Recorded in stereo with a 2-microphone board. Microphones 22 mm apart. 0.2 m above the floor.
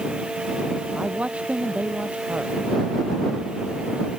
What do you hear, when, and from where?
0.9 s a man speaking: 75° right (ahead or behind)